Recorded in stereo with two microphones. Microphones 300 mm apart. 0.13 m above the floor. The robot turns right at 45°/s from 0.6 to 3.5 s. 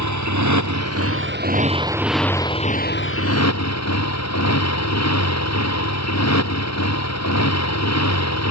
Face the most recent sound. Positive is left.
turn(degrees=60)